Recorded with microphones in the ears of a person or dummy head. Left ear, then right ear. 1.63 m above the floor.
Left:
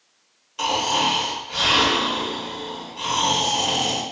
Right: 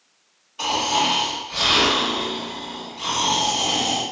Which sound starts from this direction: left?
Snoring, at 0.6 s.